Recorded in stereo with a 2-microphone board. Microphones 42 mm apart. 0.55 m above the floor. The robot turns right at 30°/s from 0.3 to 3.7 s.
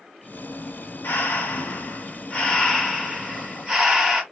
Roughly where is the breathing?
Left.